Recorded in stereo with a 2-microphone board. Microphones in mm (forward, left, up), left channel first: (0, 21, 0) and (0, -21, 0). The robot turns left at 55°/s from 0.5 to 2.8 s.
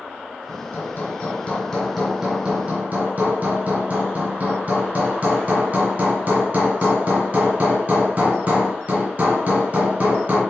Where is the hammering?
75° left, 2.5 m; by 10.4 s 50° right, 2.5 m.